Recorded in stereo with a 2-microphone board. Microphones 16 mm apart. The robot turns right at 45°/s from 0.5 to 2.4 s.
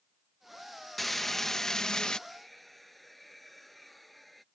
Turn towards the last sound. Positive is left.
turn(degrees=0)  # may be behind; listen again after turning